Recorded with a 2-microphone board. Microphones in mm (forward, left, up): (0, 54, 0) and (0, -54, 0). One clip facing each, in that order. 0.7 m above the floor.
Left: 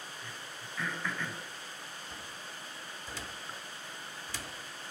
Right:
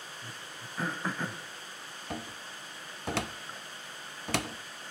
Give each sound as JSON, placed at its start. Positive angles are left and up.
{"t": 0.2, "sound": "throat clearing", "side_deg": -35, "distance_m": 1.3}
{"t": 2.1, "sound": "a cupboard door", "side_deg": -70, "distance_m": 0.5}